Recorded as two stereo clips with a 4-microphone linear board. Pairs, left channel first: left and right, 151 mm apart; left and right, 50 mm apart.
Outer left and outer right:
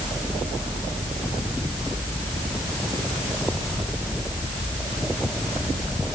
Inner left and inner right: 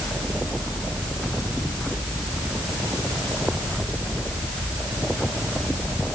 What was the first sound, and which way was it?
Only background noise.